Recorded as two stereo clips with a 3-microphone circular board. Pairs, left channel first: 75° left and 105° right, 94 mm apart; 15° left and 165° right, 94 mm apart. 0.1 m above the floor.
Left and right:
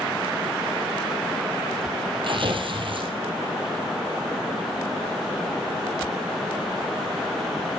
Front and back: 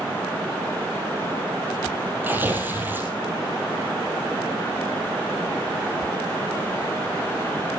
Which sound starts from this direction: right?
Tearing paper, at 2.2 s.